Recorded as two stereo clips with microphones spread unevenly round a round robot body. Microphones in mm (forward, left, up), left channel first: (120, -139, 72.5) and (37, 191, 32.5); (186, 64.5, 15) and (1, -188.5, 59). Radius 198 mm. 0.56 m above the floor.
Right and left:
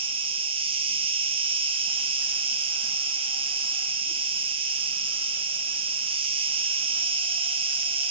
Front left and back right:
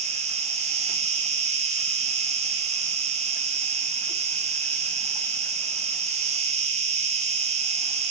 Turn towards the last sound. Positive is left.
turn(degrees=160)